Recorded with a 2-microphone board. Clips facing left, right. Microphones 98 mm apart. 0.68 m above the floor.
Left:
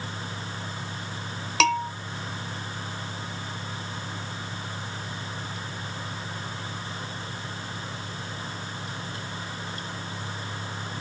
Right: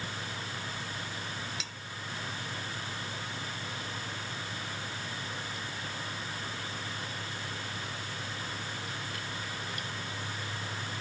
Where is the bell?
85° left.